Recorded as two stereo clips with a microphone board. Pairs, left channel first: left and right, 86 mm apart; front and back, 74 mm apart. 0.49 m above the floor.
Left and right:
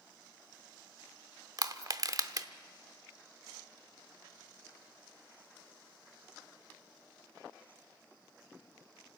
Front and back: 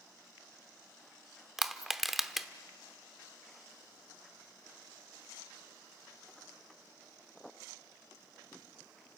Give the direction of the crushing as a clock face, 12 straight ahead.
3 o'clock.